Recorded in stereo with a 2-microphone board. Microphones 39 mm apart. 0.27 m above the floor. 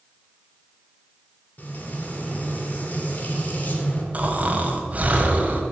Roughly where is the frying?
Left.